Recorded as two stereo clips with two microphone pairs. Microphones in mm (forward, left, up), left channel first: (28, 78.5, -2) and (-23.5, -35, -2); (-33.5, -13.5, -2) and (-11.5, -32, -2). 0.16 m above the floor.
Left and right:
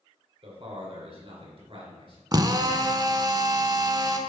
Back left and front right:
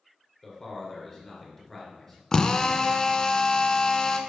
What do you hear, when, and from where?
0.4 s a man speaking: 135° right, 2.5 m
2.3 s a drill: 160° right, 0.5 m